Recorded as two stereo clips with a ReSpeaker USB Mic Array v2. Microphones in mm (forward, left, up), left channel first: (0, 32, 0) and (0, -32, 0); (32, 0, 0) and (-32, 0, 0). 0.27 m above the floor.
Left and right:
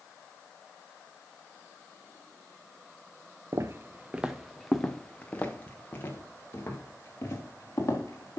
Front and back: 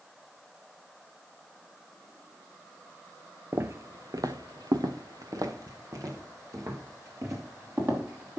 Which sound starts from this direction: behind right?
Footsteps, at 3.5 s.